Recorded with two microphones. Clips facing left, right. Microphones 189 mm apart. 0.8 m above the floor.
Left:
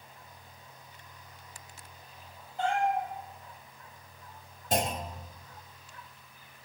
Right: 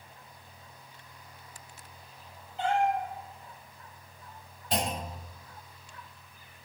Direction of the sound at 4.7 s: 45° left (ahead or behind).